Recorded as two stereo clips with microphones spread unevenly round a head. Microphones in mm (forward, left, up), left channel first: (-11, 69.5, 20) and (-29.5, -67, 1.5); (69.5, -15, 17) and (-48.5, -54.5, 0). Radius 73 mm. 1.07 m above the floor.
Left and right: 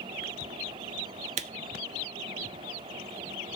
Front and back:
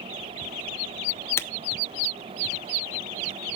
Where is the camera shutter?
50° right, 0.6 m.